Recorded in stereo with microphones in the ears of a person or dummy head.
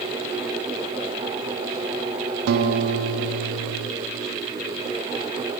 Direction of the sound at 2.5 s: 60° right (ahead or behind).